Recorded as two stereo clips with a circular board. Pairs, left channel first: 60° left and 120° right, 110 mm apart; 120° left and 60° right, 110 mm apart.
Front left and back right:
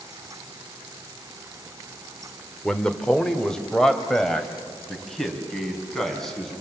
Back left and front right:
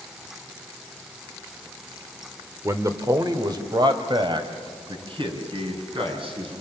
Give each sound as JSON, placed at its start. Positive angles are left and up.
{"t": 2.6, "sound": "a man speaking", "azimuth_deg": -15, "distance_m": 1.4}